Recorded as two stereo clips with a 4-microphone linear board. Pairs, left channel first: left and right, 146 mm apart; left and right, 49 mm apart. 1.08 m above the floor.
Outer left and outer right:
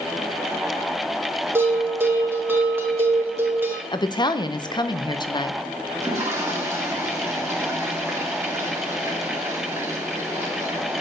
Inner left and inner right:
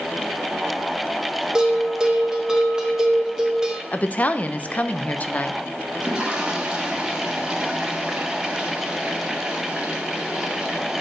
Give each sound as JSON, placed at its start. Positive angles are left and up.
{"t": 1.6, "sound": "a bell", "side_deg": -15, "distance_m": 1.6}
{"t": 3.9, "sound": "a woman speaking", "side_deg": 30, "distance_m": 0.6}
{"t": 5.9, "sound": "a toilet flushing", "side_deg": -20, "distance_m": 2.0}